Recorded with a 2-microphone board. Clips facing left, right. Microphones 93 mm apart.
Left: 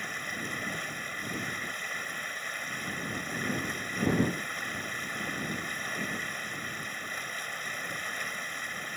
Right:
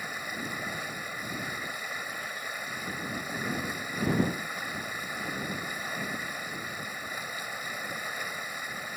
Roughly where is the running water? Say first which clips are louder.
Right 1 dB; centre.